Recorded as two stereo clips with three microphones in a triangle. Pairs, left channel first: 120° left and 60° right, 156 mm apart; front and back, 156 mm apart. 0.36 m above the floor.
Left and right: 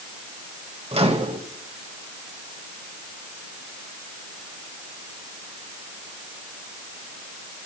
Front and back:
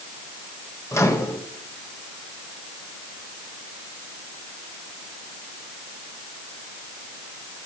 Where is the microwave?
60° right, 1.3 m.